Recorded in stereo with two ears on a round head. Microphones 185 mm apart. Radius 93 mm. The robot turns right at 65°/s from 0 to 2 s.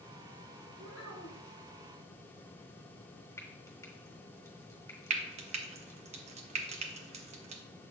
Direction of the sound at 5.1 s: 35° right (ahead or behind).